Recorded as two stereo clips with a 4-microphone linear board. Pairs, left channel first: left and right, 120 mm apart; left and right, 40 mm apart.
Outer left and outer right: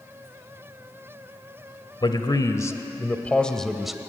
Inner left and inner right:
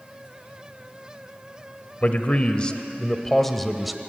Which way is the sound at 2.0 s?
40° left (ahead or behind).